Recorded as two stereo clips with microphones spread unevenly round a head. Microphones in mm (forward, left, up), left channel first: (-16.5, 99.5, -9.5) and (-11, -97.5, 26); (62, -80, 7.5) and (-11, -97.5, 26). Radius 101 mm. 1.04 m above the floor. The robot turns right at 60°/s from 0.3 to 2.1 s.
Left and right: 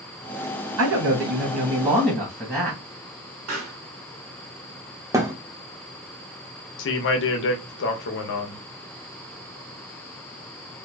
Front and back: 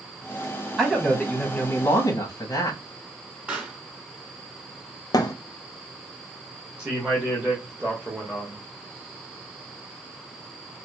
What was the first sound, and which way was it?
A man speaking, 85° right.